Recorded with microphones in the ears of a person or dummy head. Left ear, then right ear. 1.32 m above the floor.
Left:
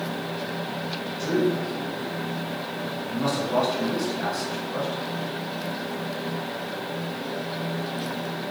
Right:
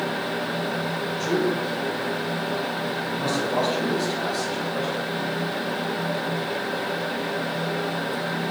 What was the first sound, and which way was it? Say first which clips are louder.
A man speaking: left 1 dB; 10° left (ahead or behind).